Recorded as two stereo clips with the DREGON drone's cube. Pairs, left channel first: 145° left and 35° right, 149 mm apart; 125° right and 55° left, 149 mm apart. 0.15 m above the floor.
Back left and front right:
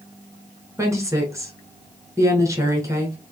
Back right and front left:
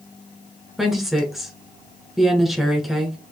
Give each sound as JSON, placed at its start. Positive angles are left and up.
{"t": 0.8, "sound": "a woman speaking", "azimuth_deg": -30, "distance_m": 1.1}